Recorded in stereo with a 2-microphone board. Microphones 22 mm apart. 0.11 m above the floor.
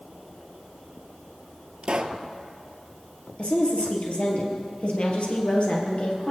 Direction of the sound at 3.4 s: 55° left (ahead or behind).